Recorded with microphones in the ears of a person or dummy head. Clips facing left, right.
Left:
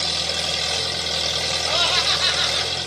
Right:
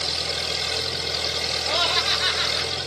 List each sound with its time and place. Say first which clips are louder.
0.0 s an engine running: left 2 dB; 60° left (ahead or behind), 2.5 m
1.7 s laughter: even; centre (ahead or behind), 0.6 m